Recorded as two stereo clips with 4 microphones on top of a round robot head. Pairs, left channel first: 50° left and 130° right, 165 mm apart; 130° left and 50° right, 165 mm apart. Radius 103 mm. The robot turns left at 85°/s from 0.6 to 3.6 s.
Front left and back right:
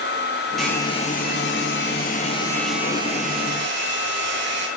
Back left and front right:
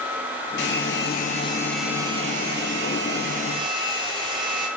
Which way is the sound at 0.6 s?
140° left.